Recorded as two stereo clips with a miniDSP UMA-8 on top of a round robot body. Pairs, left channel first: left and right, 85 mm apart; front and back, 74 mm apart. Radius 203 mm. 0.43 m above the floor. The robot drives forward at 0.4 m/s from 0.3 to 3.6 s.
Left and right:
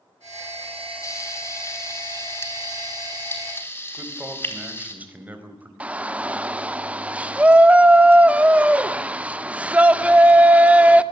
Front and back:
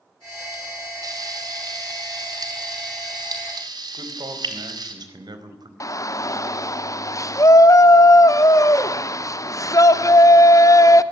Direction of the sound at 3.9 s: 160° right.